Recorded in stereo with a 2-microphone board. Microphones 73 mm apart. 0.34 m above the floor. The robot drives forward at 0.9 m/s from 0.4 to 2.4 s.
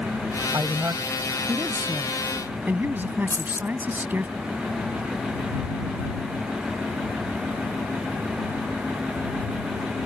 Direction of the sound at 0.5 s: 45° right (ahead or behind).